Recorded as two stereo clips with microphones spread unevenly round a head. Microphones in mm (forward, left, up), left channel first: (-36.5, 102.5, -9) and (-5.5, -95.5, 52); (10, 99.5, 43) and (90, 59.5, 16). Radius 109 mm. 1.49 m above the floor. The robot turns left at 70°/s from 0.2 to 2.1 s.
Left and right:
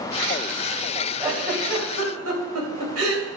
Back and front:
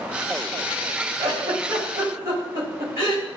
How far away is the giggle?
About 3.5 m.